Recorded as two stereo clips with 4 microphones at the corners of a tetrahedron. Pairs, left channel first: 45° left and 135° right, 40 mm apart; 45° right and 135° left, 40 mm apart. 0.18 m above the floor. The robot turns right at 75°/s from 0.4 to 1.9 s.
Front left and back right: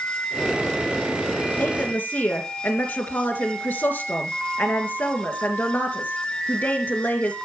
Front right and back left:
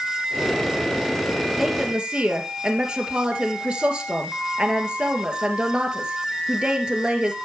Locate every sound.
1.6 s a woman speaking: 45° left, 2.5 m; by 7.4 s 70° left, 2.5 m